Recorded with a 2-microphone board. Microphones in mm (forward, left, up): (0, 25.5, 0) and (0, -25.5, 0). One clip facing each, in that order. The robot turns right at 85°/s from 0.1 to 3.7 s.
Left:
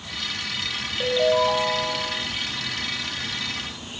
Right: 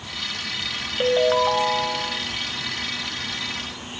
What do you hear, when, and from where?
1.0 s a ringtone: 135° right, 1.0 m; by 2.3 s 25° right, 1.0 m